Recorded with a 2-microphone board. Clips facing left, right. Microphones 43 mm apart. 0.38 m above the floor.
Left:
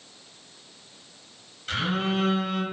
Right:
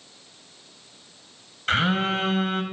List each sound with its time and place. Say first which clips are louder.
1.7 s a phone buzzing: right 4 dB; 50° right (ahead or behind), 2 m